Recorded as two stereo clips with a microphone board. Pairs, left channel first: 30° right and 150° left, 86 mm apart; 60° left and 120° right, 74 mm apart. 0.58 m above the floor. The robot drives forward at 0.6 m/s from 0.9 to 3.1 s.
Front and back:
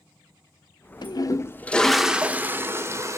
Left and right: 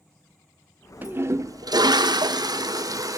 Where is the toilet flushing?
55° right, 0.6 m; by 3.2 s 155° right, 1.1 m.